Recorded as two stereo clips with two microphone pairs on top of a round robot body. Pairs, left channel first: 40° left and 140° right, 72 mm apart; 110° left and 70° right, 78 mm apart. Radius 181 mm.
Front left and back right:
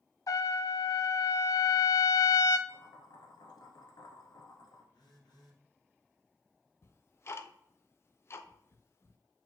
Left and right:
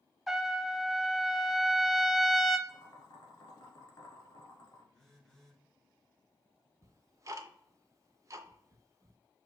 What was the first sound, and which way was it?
A trumpet, 25° left.